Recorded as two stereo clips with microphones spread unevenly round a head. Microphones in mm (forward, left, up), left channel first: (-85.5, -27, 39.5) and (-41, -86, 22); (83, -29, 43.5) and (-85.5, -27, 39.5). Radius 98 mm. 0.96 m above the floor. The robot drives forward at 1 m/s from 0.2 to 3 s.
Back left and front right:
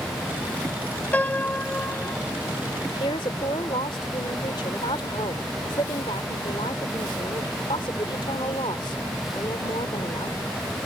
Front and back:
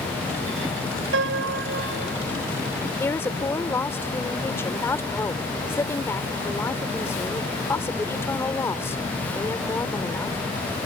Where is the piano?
165° right.